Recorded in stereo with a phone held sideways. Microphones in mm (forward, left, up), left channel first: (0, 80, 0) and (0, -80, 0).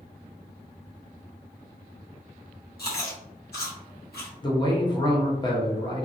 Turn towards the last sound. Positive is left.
turn(degrees=30)  # may be behind; listen again after turning